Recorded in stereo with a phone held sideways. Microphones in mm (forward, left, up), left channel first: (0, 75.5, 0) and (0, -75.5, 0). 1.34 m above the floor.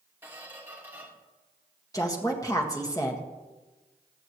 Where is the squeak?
15° right (ahead or behind), 2 m.